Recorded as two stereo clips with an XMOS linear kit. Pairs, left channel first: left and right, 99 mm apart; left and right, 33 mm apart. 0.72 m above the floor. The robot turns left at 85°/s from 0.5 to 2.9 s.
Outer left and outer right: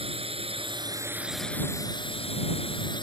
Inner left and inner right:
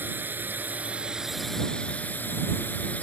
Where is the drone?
105° right; by 3.0 s 50° left.